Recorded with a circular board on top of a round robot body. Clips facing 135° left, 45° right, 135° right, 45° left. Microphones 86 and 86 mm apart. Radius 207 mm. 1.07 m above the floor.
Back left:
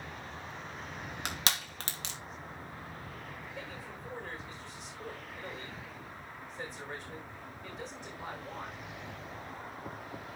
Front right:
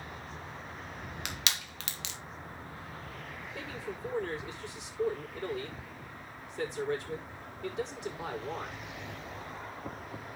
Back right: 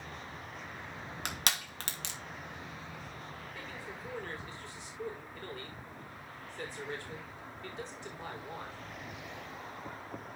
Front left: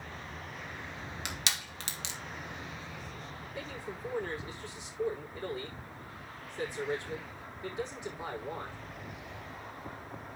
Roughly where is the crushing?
Behind.